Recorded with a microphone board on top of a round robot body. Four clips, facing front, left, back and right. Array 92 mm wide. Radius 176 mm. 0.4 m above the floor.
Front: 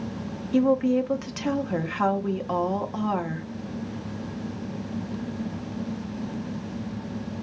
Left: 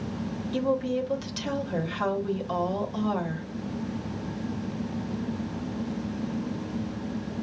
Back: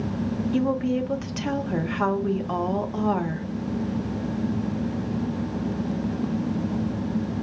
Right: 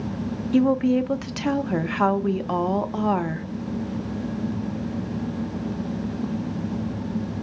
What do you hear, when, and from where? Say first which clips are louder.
0.5 s a woman speaking: right 8 dB, front 5 dB; 90° right, 1.1 m